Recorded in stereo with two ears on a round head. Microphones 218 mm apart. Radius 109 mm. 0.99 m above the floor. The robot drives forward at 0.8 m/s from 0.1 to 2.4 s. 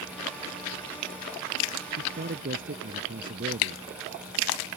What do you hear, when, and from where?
2.0 s a man speaking: 40° right (ahead or behind); by 3.8 s 35° right (ahead or behind)